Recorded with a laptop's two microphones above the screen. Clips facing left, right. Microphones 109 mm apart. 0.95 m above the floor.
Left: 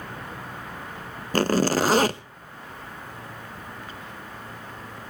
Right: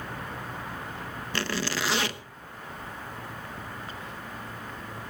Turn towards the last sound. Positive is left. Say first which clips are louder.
# left 11 dB
turn(degrees=45)  # may be behind; listen again after turning